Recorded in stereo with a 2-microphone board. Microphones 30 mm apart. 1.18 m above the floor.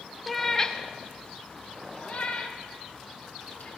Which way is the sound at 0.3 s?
Centre (ahead or behind).